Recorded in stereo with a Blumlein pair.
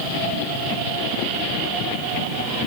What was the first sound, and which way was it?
Only background noise.